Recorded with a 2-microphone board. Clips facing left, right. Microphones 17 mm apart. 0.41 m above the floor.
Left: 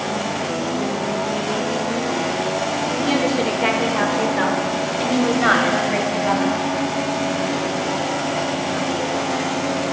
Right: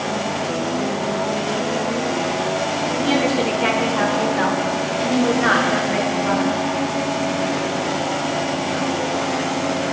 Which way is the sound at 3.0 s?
5° right (ahead or behind).